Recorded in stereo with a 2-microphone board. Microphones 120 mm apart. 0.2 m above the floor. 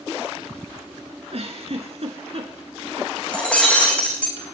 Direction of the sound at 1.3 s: 60° right (ahead or behind).